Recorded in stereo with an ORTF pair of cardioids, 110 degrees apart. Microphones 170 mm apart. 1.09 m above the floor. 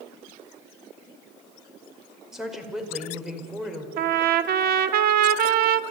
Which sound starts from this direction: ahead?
A woman speaking, at 2.3 s.